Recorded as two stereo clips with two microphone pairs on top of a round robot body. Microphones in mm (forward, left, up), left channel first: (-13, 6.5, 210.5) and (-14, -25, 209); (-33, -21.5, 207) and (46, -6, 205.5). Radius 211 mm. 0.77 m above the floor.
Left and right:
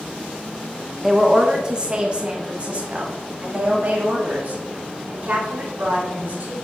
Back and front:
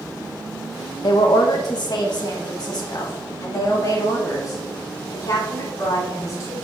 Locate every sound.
1.0 s a woman speaking: 165° right, 1.1 m; by 6.6 s 120° right, 3.5 m